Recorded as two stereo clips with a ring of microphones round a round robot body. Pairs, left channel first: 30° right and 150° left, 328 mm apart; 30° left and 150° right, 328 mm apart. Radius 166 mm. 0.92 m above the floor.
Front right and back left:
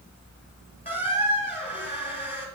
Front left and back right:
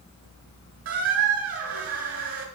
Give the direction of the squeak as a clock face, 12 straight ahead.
3 o'clock.